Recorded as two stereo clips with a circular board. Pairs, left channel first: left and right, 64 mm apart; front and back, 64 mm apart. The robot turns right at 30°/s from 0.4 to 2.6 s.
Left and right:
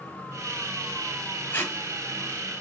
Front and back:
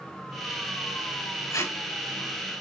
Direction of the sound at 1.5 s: 30° left.